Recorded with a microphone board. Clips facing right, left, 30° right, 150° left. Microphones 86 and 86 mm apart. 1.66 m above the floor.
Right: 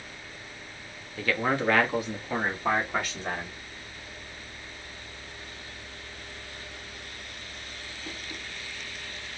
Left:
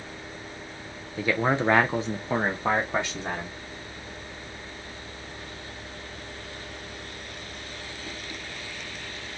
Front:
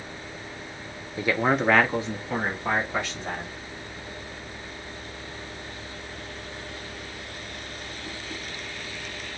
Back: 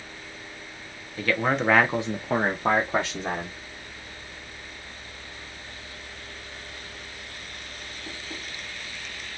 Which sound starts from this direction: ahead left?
A man speaking, at 1.2 s.